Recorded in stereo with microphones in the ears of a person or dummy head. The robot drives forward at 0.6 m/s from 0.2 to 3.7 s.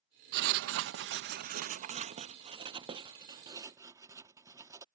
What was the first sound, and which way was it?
Writing, 55° right (ahead or behind).